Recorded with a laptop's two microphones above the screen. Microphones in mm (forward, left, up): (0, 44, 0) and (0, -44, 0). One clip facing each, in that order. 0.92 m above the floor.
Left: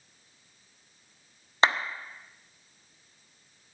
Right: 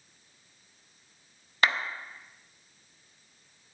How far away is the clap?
About 0.6 m.